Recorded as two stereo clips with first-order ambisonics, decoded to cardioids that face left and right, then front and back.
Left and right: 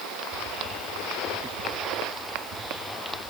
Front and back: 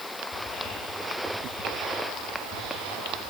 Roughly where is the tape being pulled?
No tape being pulled in this recording.